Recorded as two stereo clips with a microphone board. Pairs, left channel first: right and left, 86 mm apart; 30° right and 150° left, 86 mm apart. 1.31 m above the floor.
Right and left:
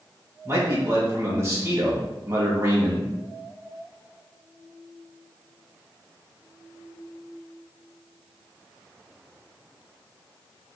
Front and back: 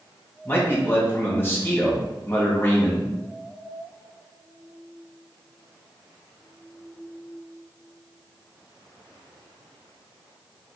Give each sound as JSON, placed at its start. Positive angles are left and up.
{"t": 0.5, "sound": "a man speaking", "azimuth_deg": 35, "distance_m": 2.5}